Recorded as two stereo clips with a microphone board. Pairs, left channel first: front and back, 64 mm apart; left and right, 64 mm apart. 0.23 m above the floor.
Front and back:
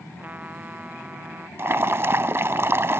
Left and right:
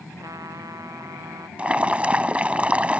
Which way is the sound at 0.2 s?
115° right.